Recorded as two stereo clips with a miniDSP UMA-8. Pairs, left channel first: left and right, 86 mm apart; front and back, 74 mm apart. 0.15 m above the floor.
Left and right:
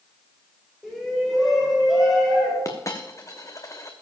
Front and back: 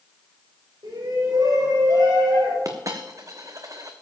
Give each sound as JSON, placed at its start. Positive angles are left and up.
{"t": 0.8, "sound": "a shout", "azimuth_deg": -175, "distance_m": 7.5}
{"t": 2.6, "sound": "a dropped coin", "azimuth_deg": 140, "distance_m": 1.6}